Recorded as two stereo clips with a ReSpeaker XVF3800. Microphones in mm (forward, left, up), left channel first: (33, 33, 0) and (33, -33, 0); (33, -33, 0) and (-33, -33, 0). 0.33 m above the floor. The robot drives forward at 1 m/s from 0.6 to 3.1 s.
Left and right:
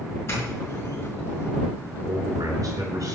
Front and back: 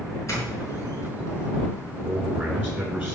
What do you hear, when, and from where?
0.3 s a doorbell: 40° left, 5 m; by 1.5 s 50° left, 4.5 m
2.0 s a man speaking: 115° right, 5 m; by 3.1 s 125° right, 5.5 m